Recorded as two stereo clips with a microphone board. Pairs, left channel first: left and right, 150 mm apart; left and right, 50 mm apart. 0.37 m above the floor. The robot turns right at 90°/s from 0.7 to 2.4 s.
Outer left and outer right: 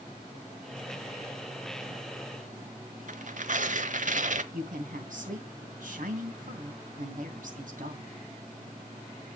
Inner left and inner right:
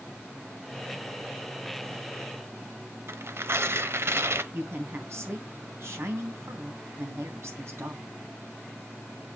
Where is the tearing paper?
60° right (ahead or behind), 0.9 m.